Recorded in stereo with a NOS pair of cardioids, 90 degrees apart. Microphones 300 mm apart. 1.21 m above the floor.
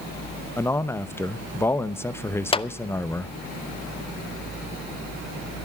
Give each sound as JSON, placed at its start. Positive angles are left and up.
{"t": 0.6, "sound": "a man speaking", "azimuth_deg": 10, "distance_m": 0.8}
{"t": 2.5, "sound": "a clap", "azimuth_deg": 20, "distance_m": 0.5}